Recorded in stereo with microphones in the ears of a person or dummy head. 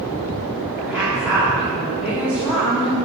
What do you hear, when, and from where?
0.8 s a woman speaking: 5° right (ahead or behind), 2.5 m